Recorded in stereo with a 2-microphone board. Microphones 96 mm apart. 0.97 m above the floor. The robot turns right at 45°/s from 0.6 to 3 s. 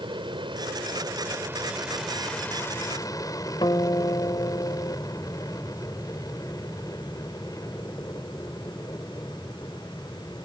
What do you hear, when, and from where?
0.0 s an aircraft: 65° right; by 10.4 s 40° left
3.6 s a guitar: 55° left (ahead or behind)